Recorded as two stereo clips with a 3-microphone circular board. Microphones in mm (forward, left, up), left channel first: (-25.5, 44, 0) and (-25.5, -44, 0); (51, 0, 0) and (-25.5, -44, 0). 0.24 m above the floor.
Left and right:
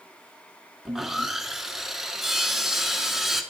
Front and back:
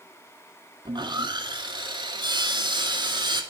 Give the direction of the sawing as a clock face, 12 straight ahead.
6 o'clock.